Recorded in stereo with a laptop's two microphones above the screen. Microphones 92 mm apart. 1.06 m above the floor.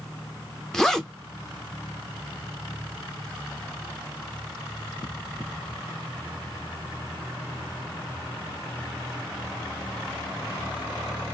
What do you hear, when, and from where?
0.7 s a zipper: 5° left (ahead or behind), 0.6 m